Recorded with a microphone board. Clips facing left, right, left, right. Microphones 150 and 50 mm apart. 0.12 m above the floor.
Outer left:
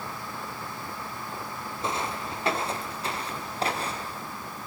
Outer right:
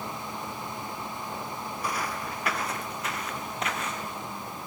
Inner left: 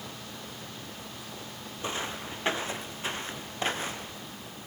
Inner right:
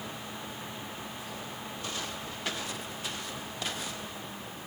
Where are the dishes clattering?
I don't hear dishes clattering.